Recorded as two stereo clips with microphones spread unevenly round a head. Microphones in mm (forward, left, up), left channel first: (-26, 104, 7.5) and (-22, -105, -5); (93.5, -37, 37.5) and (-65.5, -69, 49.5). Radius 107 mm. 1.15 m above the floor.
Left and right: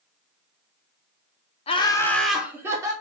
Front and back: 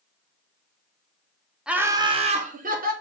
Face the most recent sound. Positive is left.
turn(degrees=-155)